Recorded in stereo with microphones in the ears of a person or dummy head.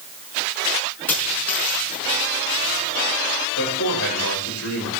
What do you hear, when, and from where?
1.1 s a dropped coin: 10° left (ahead or behind), 5.5 m
3.6 s a man speaking: 85° left, 7 m